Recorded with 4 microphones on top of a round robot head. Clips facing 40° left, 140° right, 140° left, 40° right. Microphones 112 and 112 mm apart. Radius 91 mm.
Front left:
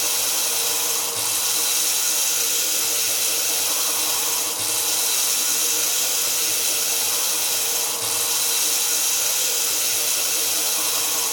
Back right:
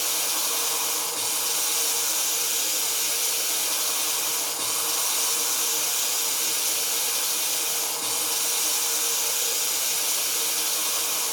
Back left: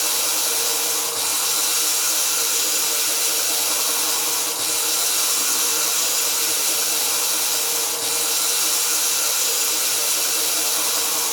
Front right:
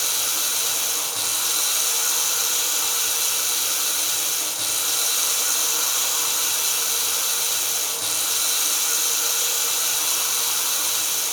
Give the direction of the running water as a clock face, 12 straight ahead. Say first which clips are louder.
Front left 2 dB, back left 4 dB; 11 o'clock.